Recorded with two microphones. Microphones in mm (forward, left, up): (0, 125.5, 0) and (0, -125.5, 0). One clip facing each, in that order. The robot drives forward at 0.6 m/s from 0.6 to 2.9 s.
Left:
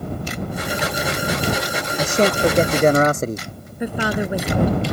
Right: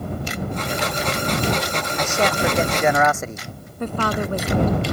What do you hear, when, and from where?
2.0 s a man speaking: 40° left (ahead or behind)
3.8 s a woman speaking: 10° left (ahead or behind)